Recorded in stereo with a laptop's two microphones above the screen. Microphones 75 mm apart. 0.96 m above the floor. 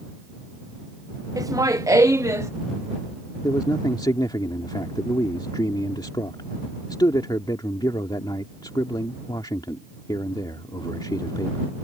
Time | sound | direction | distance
1.4 | laughter | 50° right (ahead or behind) | ?
3.4 | a man speaking | 75° left (ahead or behind) | ?